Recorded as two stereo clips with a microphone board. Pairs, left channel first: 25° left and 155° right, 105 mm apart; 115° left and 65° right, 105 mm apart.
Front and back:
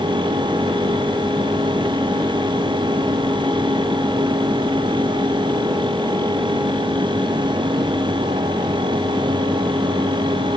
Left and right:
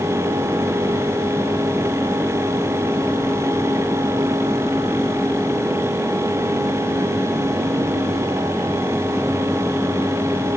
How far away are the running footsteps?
No running footsteps in this recording.